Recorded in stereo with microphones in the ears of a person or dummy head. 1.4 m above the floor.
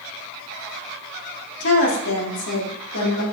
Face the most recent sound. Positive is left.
turn(degrees=85)